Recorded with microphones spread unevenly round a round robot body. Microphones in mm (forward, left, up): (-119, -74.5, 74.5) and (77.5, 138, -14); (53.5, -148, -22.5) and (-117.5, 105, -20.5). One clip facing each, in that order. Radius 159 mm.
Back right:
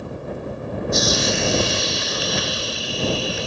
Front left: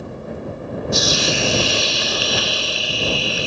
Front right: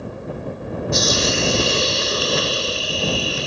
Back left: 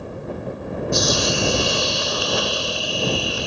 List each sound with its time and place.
0.9 s a hiss: 15° left